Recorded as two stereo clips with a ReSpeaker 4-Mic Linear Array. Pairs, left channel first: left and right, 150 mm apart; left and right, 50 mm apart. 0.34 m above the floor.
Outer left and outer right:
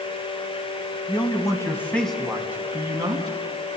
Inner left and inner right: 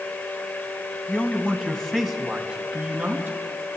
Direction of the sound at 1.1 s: 35° left (ahead or behind).